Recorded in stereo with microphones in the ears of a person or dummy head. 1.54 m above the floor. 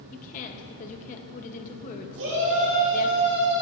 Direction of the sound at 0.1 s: 40° left (ahead or behind).